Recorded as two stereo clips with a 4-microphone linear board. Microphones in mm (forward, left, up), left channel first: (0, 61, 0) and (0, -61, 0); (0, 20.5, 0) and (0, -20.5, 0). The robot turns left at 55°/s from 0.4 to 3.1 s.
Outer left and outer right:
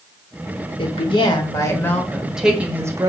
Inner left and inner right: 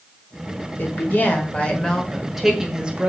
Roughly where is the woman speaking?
Left.